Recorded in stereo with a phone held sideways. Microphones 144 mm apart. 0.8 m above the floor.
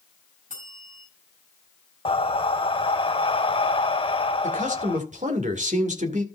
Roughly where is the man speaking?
Right.